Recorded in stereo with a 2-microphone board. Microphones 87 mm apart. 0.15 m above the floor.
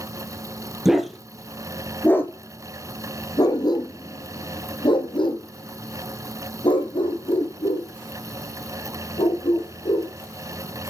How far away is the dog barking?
About 1.7 m.